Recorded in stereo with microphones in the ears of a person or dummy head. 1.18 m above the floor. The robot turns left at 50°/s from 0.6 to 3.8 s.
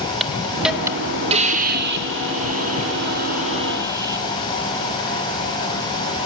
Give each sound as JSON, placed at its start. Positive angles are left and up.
{"t": 0.2, "sound": "a hiss", "azimuth_deg": -5, "distance_m": 1.3}